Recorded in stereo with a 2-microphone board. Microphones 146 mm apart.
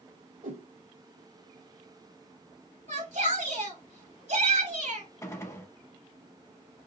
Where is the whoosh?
75° right (ahead or behind), 1.5 m.